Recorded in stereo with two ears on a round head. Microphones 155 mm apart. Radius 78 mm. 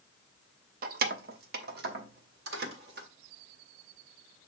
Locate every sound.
0.8 s keys jangling: 55° right (ahead or behind), 0.6 m; by 3.1 s 60° right (ahead or behind), 1.8 m